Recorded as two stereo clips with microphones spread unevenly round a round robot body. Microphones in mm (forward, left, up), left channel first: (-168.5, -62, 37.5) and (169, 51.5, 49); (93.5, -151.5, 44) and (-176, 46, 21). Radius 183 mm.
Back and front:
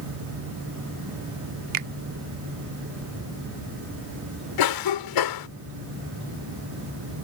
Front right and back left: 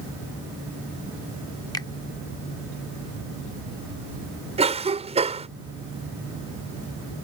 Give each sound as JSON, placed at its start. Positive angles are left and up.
{"t": 1.7, "sound": "a finger snap", "azimuth_deg": 45}
{"t": 4.6, "sound": "a cough", "azimuth_deg": -145}